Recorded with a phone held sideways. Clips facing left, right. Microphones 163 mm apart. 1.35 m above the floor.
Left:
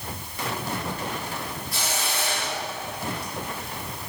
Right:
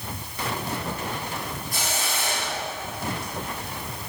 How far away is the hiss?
About 1.5 m.